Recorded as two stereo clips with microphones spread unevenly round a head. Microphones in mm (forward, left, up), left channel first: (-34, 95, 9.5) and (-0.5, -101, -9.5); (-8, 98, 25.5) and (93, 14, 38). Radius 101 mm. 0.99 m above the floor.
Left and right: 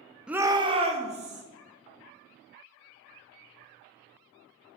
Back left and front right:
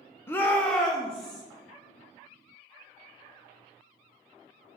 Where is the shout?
160° right, 0.6 m; by 1.4 s 135° right, 1.8 m.